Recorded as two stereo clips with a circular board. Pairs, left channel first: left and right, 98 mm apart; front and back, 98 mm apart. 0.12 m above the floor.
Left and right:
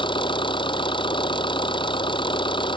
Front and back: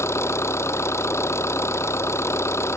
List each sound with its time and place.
0.0 s an engine running: 60° left